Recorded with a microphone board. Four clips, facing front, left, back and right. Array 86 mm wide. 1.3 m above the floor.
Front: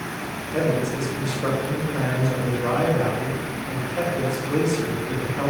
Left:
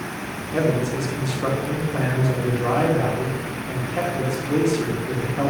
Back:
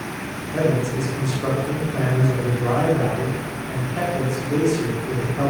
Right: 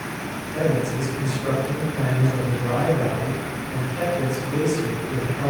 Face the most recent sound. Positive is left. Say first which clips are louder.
# left 1 dB, back 2 dB
turn(degrees=110)